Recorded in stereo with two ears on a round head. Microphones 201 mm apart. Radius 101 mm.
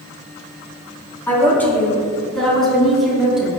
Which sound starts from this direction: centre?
A woman speaking, at 1.3 s.